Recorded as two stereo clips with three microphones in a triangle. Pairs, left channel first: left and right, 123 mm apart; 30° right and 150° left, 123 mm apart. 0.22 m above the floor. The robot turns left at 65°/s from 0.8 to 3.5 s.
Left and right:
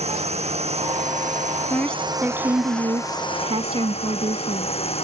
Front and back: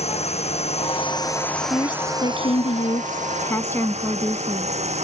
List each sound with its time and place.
0.0 s a drone: 60° right; by 5.0 s 125° left
1.7 s a woman speaking: 25° left; by 4.8 s 95° right